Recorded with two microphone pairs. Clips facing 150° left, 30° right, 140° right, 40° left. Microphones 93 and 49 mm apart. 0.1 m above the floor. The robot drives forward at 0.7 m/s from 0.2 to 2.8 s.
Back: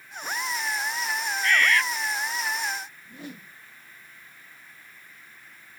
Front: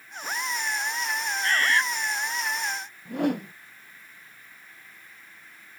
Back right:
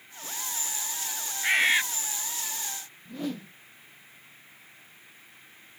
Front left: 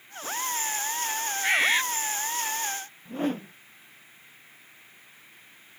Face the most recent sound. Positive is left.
turn(degrees=-10)